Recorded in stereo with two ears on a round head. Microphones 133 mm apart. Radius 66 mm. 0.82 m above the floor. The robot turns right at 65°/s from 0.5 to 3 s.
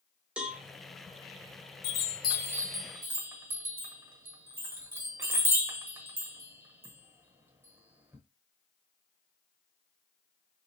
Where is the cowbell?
5° right (ahead or behind), 0.6 m; by 0.6 s centre (ahead or behind), 0.6 m.